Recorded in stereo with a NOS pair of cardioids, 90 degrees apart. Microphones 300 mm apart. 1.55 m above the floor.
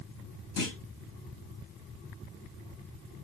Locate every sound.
0.6 s a clunk: 50° left, 4 m